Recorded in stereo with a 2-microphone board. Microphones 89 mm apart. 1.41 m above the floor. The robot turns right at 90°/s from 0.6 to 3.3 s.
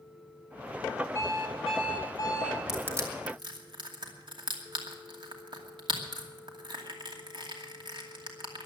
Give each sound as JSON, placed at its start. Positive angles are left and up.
{"t": 1.1, "sound": "an alarm clock", "azimuth_deg": 35, "distance_m": 3.0}
{"t": 2.7, "sound": "crushing", "side_deg": -5, "distance_m": 2.5}